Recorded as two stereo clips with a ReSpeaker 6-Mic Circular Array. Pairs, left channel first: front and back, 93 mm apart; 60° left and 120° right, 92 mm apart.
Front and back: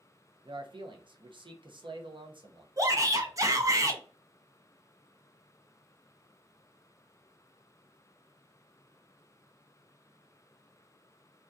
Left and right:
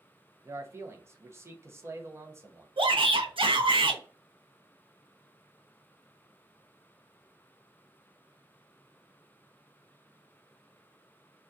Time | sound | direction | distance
0.5 | a man speaking | 175° right | 0.5 m
2.8 | a shout | 130° right | 0.6 m